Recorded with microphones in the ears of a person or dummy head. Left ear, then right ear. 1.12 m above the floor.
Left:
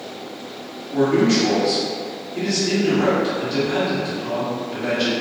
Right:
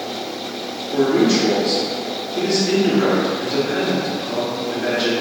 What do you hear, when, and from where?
0.9 s a man speaking: 40° right (ahead or behind), 1.7 m